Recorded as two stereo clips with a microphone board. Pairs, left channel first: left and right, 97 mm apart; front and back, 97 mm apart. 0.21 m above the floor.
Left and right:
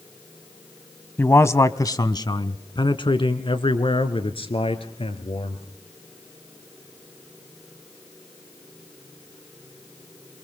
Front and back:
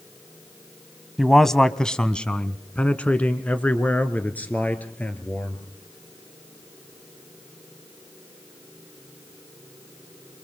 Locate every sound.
1.2 s a man speaking: 85° left, 1.0 m; by 5.6 s 75° left, 3 m